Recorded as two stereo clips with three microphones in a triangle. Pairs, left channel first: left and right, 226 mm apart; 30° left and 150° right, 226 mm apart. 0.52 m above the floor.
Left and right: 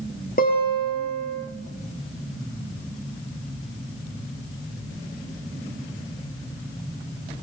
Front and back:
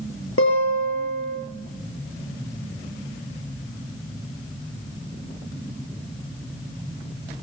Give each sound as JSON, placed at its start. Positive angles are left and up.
{"t": 0.4, "sound": "a guitar", "azimuth_deg": 40, "distance_m": 6.5}